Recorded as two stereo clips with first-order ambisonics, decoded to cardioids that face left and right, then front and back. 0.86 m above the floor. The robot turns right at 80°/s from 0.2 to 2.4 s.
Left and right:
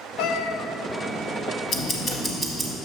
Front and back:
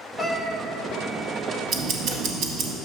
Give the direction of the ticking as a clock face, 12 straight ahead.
8 o'clock.